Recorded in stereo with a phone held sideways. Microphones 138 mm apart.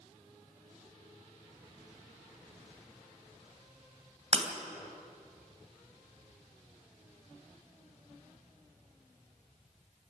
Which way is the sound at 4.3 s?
50° right (ahead or behind).